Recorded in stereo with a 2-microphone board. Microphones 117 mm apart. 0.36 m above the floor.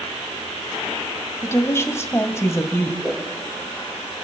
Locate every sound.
1.4 s a woman speaking: 25° left (ahead or behind), 1.6 m
3.0 s a whoosh: 5° right (ahead or behind), 6.5 m